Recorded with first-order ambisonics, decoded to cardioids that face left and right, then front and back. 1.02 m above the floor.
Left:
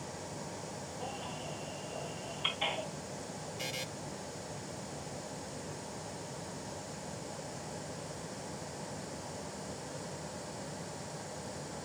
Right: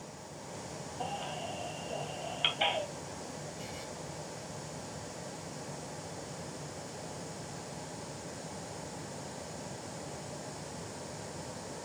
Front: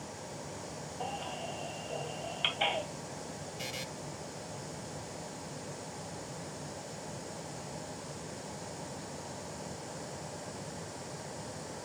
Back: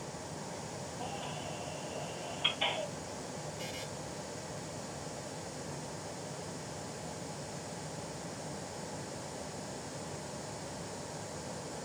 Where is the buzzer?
55° left, 0.6 m.